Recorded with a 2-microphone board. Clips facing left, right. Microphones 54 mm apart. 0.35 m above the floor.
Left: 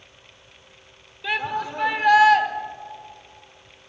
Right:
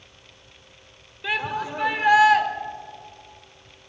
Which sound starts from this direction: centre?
A shout, at 1.2 s.